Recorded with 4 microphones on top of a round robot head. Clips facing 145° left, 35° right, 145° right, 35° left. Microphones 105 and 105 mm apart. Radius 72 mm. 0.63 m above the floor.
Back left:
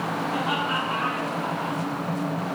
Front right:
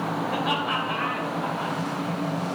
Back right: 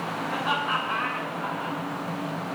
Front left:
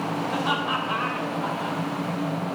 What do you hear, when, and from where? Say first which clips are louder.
0.3 s laughter: back left 1 dB, back right 1 dB; 45° right, 2.5 m; by 1.8 s 30° right, 3.5 m